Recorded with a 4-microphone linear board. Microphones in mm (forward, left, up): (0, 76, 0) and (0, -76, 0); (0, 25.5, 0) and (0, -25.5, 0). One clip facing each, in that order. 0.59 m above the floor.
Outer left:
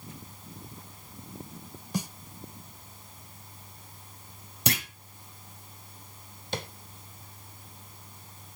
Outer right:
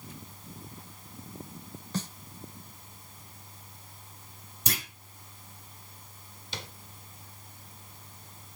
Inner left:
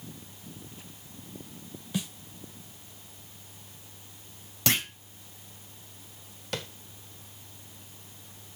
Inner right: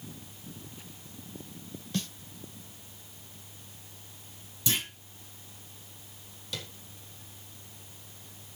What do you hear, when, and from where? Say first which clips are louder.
1.9 s a snare drum: outer left 2 dB, inner left 1 dB; 10° left (ahead or behind), 0.7 m
4.7 s a clunk: outer left 6 dB, inner left 4 dB; 70° left (ahead or behind), 1.9 m
6.5 s tapping: outer left 8 dB, inner left 5 dB; 55° left (ahead or behind), 1.4 m